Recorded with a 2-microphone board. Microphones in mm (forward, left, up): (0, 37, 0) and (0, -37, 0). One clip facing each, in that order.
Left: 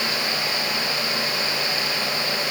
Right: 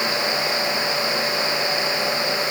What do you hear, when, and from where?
Only background noise.